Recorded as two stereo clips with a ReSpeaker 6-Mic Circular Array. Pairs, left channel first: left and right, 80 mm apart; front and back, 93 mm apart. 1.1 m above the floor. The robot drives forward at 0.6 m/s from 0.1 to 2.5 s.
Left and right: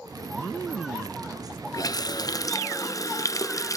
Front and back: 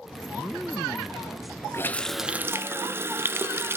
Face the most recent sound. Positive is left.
turn(degrees=120)